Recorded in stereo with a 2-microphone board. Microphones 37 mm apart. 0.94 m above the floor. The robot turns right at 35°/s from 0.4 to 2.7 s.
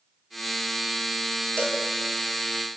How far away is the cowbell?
About 5 m.